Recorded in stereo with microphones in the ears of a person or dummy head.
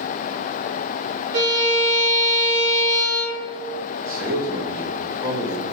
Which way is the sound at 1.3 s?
65° right (ahead or behind).